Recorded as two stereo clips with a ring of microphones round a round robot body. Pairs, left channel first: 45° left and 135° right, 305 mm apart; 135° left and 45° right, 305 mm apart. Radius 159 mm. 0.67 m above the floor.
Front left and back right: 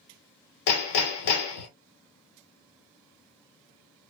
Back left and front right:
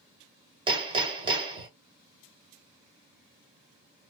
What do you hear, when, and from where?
0.7 s hammering: 30° left, 1.3 m